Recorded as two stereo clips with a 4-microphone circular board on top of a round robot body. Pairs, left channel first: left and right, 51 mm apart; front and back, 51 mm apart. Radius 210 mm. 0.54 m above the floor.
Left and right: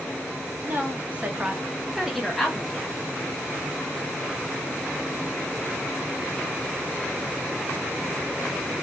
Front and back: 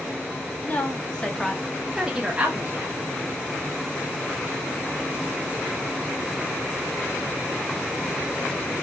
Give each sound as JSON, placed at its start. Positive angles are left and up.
{"t": 0.6, "sound": "a woman speaking", "azimuth_deg": -50, "distance_m": 1.3}